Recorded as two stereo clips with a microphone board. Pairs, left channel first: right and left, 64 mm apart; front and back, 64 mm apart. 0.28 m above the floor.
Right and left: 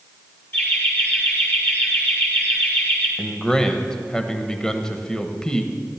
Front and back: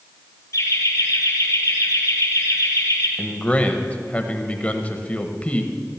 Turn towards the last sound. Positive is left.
turn(degrees=-30)